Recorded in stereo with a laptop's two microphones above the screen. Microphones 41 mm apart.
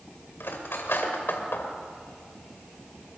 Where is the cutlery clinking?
60° left (ahead or behind), 2.5 m.